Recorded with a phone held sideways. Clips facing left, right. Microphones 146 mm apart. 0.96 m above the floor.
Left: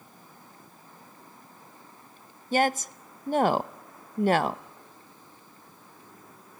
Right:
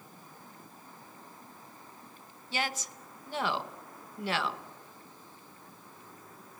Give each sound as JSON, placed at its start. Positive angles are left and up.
{"t": 2.5, "sound": "a woman speaking", "side_deg": 50, "distance_m": 0.6}